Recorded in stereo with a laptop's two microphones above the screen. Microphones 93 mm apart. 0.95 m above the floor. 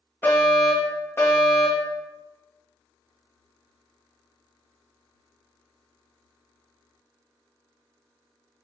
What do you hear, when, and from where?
0.2 s a fire alarm: 25° left (ahead or behind), 2.0 m